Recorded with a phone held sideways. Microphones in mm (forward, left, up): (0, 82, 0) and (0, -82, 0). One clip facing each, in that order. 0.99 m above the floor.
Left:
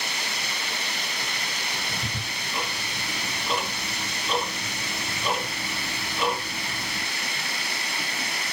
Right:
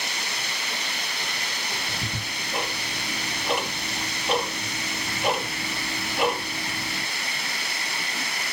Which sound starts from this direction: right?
Ticking, at 1.7 s.